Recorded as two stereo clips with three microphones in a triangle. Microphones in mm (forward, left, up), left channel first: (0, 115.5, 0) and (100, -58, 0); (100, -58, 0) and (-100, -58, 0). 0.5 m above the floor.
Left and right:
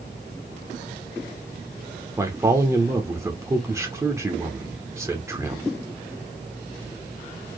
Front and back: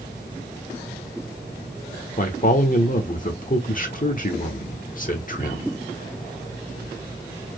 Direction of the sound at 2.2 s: 10° left.